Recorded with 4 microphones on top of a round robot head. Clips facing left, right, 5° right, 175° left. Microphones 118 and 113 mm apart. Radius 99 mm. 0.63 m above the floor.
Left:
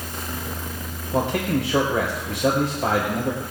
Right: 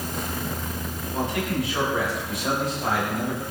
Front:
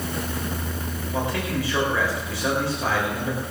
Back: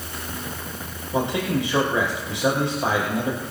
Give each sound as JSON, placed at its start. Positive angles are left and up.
{"t": 1.1, "sound": "a man speaking", "azimuth_deg": 105, "distance_m": 4.5}